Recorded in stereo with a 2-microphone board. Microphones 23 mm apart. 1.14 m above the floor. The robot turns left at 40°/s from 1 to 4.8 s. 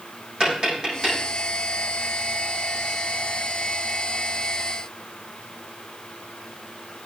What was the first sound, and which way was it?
Tapping, 35° right (ahead or behind).